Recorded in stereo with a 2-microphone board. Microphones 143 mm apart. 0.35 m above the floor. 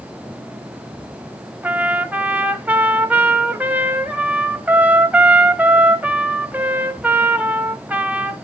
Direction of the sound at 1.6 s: 10° right (ahead or behind).